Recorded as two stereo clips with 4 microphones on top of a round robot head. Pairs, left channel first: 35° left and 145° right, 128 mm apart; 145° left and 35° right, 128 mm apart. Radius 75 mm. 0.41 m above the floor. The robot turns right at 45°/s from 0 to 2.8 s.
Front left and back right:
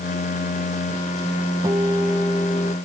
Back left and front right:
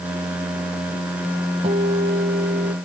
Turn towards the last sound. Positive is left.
turn(degrees=-25)